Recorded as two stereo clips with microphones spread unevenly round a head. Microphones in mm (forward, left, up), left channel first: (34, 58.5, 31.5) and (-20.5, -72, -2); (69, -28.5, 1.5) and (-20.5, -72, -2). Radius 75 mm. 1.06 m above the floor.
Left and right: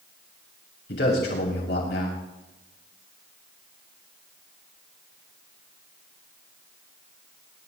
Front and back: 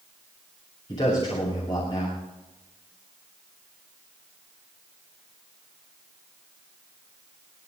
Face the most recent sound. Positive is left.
turn(degrees=90)